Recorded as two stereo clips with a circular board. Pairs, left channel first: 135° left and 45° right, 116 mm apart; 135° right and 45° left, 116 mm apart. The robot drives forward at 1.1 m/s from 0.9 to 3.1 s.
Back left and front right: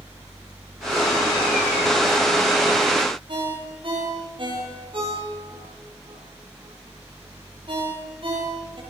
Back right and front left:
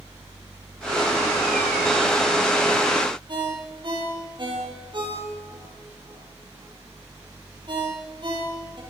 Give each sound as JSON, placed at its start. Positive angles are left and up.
{"t": 3.3, "sound": "a ringtone", "azimuth_deg": -5, "distance_m": 10.0}